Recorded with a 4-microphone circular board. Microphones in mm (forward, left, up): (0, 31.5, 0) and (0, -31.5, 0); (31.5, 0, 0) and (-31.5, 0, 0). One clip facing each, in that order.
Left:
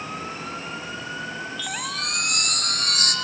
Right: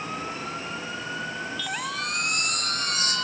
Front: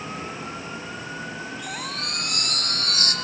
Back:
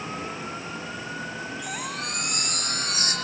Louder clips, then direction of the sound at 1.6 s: Even, even; 110° left.